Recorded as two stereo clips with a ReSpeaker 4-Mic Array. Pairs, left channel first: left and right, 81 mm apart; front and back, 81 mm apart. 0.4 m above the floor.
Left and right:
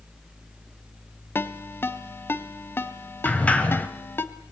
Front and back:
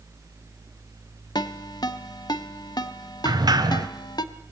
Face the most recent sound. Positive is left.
turn(degrees=160)